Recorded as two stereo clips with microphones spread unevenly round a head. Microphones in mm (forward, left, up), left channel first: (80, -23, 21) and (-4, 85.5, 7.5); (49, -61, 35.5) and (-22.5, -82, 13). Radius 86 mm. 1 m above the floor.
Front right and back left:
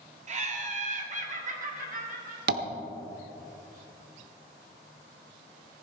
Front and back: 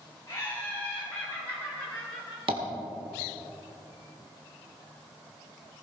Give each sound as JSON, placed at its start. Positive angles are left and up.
{"t": 0.3, "sound": "laughter", "azimuth_deg": 90, "distance_m": 1.8}
{"t": 2.5, "sound": "tapping", "azimuth_deg": 135, "distance_m": 1.0}